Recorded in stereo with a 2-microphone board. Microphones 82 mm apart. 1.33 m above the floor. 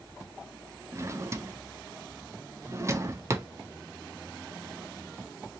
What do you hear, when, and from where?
0.9 s a drawer: 30° right (ahead or behind), 0.5 m